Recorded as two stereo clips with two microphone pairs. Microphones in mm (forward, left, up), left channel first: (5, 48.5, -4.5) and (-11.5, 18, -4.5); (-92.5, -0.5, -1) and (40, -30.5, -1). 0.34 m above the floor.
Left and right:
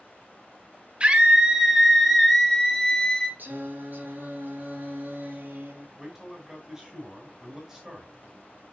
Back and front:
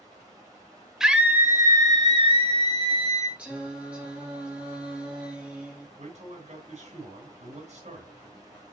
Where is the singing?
95° right, 3 m.